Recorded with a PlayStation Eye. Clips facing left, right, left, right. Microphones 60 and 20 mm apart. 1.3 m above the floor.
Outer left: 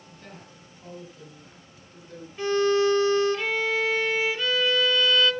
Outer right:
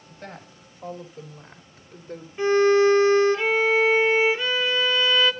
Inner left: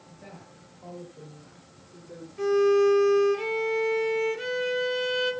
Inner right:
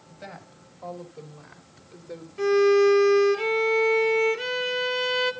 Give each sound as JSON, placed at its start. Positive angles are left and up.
{"t": 0.1, "sound": "a woman speaking", "side_deg": -55, "distance_m": 3.5}
{"t": 2.4, "sound": "a violin", "side_deg": -20, "distance_m": 1.3}